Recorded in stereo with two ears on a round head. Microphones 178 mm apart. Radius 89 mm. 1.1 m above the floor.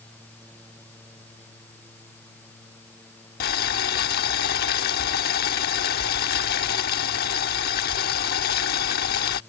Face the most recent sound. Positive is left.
turn(degrees=50)  # may be behind; listen again after turning